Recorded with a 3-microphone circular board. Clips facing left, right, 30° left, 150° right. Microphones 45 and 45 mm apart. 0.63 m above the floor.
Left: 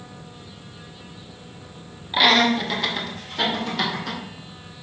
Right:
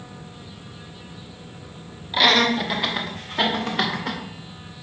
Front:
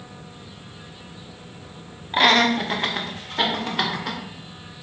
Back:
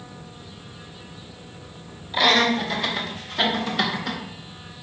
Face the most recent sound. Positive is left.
turn(degrees=-35)